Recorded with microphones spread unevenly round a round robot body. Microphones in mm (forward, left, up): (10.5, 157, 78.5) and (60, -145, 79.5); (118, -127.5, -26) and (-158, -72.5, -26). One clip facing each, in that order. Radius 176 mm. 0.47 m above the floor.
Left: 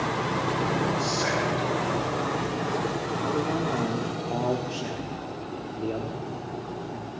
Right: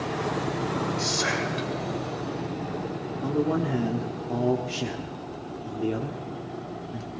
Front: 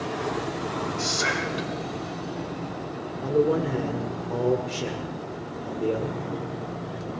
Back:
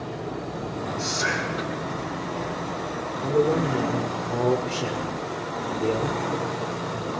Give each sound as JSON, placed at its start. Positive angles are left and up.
{"t": 1.0, "sound": "whispering", "azimuth_deg": -45, "distance_m": 3.0}
{"t": 3.2, "sound": "a man speaking", "azimuth_deg": -105, "distance_m": 1.2}